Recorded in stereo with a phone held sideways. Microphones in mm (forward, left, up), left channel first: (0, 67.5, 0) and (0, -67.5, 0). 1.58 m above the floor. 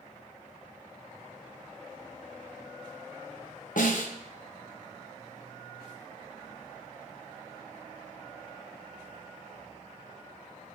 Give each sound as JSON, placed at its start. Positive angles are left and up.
{"t": 3.8, "sound": "a snare drum", "side_deg": 75, "distance_m": 1.0}